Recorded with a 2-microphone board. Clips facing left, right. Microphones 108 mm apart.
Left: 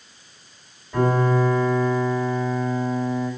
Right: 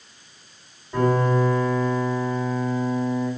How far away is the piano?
About 1.8 m.